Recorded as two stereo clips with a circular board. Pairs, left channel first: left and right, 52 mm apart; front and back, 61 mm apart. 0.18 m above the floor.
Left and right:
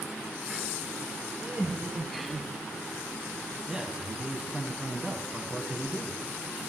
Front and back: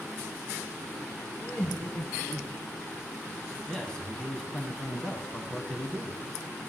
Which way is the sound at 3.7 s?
45° right.